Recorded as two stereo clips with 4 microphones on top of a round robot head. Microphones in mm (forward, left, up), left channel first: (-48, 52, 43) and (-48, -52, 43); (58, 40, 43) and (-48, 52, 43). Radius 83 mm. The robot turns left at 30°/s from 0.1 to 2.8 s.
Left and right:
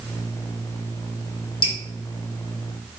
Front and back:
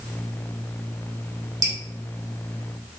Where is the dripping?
120° left, 3 m.